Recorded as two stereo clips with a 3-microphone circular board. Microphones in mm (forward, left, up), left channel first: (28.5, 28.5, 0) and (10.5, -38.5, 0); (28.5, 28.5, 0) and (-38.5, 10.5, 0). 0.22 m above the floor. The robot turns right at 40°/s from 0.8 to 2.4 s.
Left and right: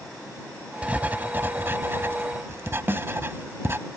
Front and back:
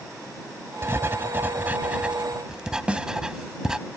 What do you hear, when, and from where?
0.8 s writing: 160° right; by 3.8 s 95° right
2.9 s a snare drum: 110° right